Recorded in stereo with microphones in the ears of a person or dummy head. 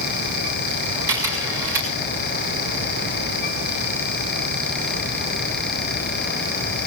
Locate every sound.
1.1 s a camera shutter: 20° right (ahead or behind), 6 m